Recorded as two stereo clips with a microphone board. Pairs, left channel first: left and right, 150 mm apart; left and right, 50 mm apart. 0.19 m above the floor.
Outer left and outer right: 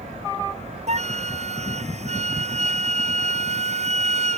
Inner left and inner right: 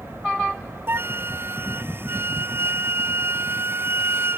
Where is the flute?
50° right (ahead or behind).